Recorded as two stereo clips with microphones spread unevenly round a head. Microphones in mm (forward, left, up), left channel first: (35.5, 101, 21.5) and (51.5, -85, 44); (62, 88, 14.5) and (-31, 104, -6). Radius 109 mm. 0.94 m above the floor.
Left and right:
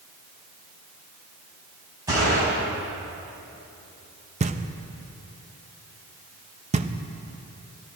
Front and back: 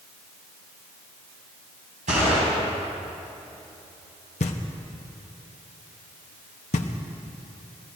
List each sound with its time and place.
2.1 s a gunshot: 160° right, 4.5 m
4.4 s knocking: 25° right, 0.8 m